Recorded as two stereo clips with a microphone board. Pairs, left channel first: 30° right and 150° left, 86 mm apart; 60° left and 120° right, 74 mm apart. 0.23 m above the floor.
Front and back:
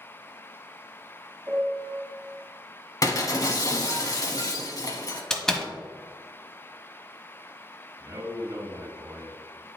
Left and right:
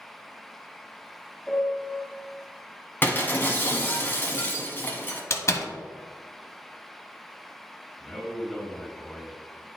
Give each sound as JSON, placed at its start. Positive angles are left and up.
{"t": 1.5, "sound": "a piano", "azimuth_deg": 125, "distance_m": 1.6}
{"t": 3.0, "sound": "breaking glass", "azimuth_deg": 5, "distance_m": 0.9}
{"t": 5.3, "sound": "a door slam", "azimuth_deg": 45, "distance_m": 0.8}
{"t": 8.0, "sound": "a man speaking", "azimuth_deg": 150, "distance_m": 1.7}